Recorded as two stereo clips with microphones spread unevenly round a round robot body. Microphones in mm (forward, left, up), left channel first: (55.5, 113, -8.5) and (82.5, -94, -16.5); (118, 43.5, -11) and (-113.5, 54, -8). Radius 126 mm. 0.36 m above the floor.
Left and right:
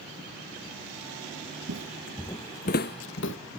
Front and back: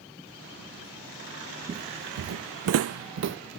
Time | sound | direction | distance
1.7 | footsteps | 115° right | ?